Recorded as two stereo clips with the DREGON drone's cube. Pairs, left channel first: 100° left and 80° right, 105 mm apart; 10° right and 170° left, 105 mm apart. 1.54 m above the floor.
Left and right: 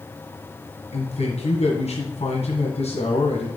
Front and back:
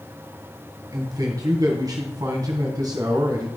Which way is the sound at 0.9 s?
115° left.